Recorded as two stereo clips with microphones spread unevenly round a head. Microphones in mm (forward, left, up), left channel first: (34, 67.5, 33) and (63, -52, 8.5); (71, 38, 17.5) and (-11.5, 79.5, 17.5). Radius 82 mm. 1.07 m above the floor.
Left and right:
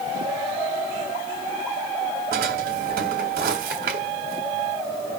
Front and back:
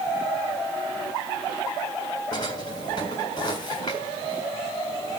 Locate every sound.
2.3 s a drawer: 95° right, 1.6 m